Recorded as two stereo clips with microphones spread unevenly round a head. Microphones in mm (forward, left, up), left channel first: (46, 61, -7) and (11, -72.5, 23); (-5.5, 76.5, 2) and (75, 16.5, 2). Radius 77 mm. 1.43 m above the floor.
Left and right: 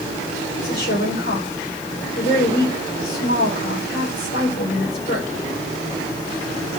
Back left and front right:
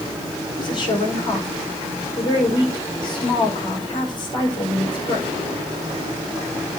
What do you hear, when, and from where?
0.6 s a woman speaking: 105° left, 5 m